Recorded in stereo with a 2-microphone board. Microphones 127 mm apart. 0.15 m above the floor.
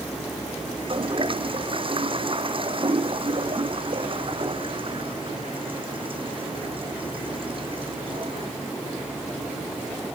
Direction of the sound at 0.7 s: 45° right (ahead or behind).